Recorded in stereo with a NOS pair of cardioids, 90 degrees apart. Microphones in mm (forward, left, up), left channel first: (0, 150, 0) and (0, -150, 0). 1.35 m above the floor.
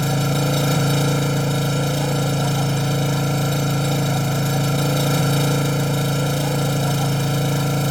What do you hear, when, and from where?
0.0 s an engine running: straight ahead